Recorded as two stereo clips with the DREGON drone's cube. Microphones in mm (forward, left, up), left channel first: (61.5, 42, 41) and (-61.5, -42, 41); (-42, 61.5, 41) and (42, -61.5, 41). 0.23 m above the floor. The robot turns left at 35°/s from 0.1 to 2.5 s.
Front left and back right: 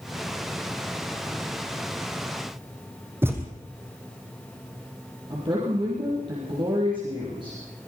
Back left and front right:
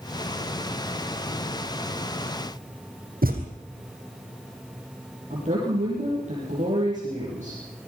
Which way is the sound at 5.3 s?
90° right.